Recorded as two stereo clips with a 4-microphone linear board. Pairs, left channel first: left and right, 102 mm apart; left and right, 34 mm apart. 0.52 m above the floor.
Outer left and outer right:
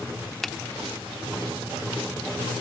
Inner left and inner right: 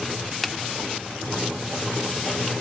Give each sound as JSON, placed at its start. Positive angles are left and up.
{"t": 0.4, "sound": "a finger snap", "side_deg": 0}